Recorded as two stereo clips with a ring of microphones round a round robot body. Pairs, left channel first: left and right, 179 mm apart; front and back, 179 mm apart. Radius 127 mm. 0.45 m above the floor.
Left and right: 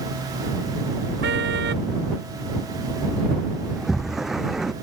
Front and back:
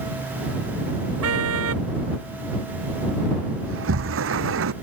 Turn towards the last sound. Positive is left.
turn(degrees=180)